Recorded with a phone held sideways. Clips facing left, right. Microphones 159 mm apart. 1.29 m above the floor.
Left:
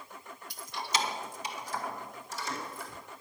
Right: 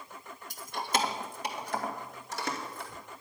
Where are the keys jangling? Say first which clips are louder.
Right 3 dB; 45° right (ahead or behind), 1.2 m; by 2.9 s 65° right (ahead or behind), 2.5 m.